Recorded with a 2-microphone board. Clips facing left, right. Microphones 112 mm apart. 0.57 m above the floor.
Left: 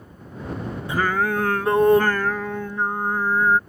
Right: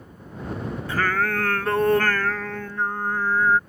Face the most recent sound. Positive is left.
turn(degrees=15)  # may be behind; listen again after turning